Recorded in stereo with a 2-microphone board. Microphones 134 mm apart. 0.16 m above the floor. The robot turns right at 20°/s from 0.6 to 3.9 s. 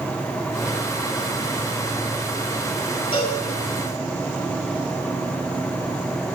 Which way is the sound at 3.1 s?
45° left (ahead or behind).